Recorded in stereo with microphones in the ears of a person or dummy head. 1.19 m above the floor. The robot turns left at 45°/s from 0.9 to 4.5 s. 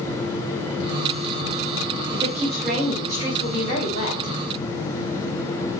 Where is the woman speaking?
160° right, 4.5 m; by 4.3 s 100° left, 4.5 m.